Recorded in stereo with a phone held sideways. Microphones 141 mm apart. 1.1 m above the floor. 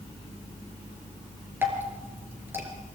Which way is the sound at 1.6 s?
15° right (ahead or behind).